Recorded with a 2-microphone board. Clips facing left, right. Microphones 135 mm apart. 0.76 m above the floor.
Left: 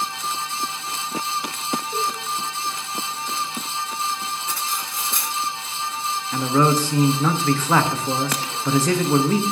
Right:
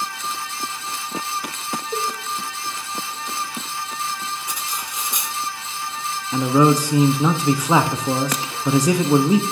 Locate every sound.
1.9 s a cowbell: 45° right (ahead or behind), 1.6 m
4.5 s cutlery clinking: 15° right (ahead or behind), 1.3 m
6.3 s a man speaking: 15° right (ahead or behind), 0.6 m